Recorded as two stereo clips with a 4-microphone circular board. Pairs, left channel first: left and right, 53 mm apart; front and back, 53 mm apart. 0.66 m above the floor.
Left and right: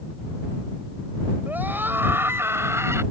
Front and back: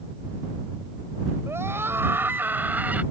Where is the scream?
145° right; by 3.0 s 120° right.